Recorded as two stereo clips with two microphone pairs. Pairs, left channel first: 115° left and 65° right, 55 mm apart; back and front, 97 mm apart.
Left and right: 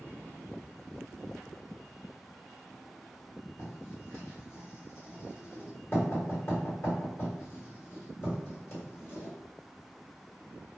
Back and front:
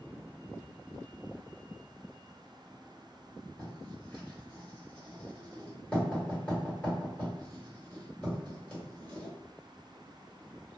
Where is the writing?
110° left, 1.7 m.